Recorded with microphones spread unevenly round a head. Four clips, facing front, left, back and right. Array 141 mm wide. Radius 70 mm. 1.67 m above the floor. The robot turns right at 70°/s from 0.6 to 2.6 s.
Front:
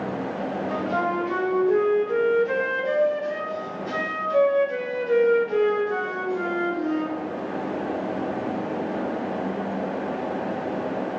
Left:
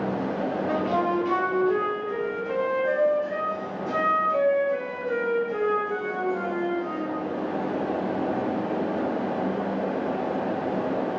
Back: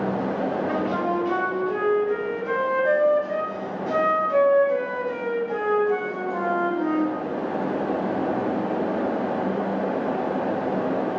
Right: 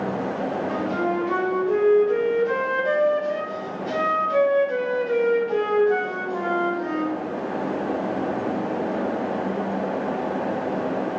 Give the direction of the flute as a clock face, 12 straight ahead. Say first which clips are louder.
Left 2 dB, back 1 dB; 9 o'clock.